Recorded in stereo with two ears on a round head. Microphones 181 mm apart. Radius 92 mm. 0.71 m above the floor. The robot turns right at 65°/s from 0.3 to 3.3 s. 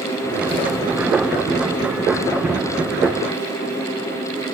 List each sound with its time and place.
Only background noise.